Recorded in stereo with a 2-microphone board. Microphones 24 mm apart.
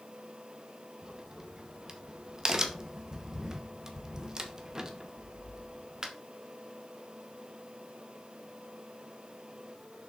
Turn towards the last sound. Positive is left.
turn(degrees=-30)  # may be behind; listen again after turning